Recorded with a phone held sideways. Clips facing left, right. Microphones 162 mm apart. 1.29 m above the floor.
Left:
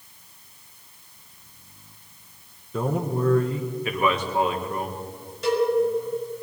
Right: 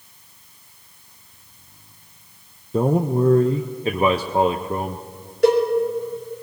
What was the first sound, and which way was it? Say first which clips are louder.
A man speaking: right 7 dB; 30° right (ahead or behind).